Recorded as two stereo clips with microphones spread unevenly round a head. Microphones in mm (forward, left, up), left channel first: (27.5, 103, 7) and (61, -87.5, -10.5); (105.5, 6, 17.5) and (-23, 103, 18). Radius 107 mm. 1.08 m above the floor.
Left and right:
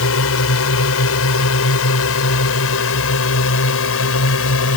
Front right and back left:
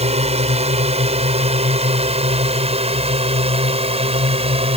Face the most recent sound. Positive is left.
turn(degrees=90)